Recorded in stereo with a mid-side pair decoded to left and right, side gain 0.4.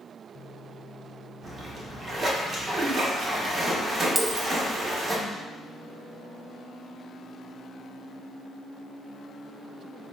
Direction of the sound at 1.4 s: 40° right.